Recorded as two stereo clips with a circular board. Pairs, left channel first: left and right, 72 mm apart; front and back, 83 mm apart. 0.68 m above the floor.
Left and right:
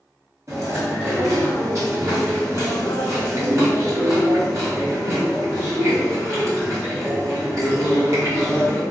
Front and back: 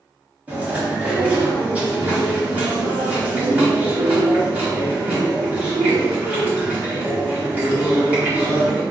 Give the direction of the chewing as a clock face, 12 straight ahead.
4 o'clock.